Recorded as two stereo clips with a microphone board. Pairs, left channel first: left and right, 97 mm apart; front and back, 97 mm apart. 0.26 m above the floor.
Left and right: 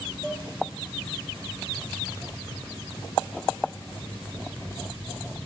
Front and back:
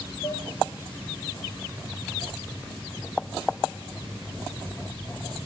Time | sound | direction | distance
0.2 | dishes clattering | 5° right | 4.5 m